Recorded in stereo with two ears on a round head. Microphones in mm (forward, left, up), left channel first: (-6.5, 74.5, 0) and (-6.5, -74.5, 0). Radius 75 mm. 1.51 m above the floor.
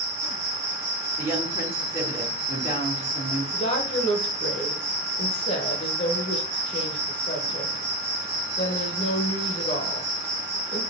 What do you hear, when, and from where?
0.0 s an insect: 15° right (ahead or behind), 3.5 m
1.2 s a woman speaking: 20° right (ahead or behind), 3 m
3.5 s a woman speaking: 35° left (ahead or behind), 1.3 m